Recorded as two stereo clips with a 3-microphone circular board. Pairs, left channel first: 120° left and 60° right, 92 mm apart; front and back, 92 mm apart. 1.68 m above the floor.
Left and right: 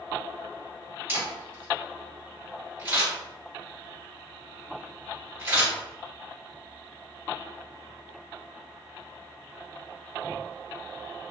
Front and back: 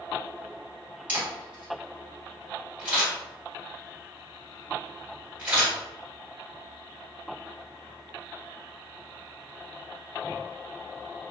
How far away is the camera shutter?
About 1.8 m.